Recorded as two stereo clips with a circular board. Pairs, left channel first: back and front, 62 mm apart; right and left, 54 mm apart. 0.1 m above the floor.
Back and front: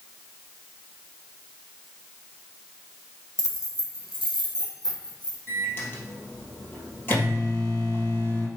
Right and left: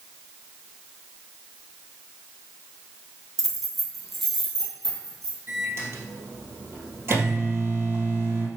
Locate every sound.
3.4 s keys jangling: 175° left, 1.6 m; by 5.4 s 175° right, 3 m
5.5 s a microwave: 125° left, 2.5 m